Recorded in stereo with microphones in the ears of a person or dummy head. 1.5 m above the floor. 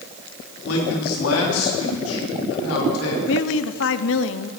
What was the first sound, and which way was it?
A man speaking, 80° left.